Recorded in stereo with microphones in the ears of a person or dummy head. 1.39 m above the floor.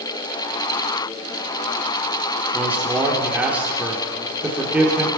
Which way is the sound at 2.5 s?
5° right (ahead or behind).